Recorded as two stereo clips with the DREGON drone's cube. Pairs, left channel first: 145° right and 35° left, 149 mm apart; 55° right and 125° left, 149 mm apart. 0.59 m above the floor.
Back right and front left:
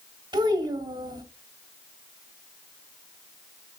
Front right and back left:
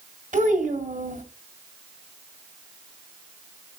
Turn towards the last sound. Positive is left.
turn(degrees=95)